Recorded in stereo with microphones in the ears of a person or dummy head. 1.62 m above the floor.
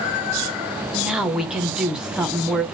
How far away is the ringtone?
I don't hear a ringtone.